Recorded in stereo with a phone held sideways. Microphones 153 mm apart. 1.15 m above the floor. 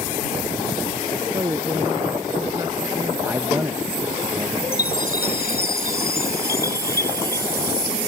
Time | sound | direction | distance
1.3 | a woman speaking | 25° right (ahead or behind) | ?
3.2 | a man speaking | 15° right (ahead or behind) | ?
4.7 | a chime | 85° left | ?